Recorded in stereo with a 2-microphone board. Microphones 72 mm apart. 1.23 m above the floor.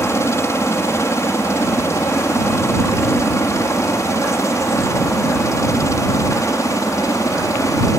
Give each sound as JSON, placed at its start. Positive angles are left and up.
{"t": 0.0, "sound": "a helicopter", "side_deg": 40}